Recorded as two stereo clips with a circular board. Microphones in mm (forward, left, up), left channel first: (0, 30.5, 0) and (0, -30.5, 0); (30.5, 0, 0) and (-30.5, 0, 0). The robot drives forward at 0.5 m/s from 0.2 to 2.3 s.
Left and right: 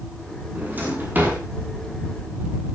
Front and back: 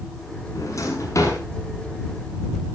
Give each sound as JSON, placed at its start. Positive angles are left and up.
{"t": 0.6, "sound": "a drawer", "azimuth_deg": -30, "distance_m": 7.5}